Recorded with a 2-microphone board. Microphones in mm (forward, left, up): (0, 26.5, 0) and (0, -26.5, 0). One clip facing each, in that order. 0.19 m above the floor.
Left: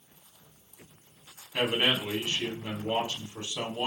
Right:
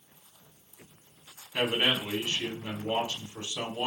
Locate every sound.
1.5 s a man speaking: 15° left (ahead or behind), 1.7 m